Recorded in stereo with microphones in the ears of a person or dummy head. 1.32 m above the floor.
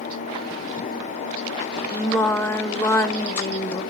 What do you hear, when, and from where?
1.9 s singing: 10° left (ahead or behind), 0.5 m